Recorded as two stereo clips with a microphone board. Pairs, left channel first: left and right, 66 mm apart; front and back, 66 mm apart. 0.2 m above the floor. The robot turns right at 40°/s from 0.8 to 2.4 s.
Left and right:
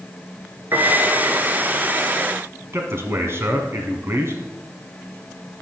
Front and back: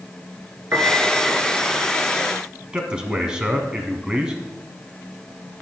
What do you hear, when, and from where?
0.7 s a piano: 125° right, 1.7 m; by 1.7 s 90° right, 1.7 m
2.7 s a man speaking: 110° right, 1.5 m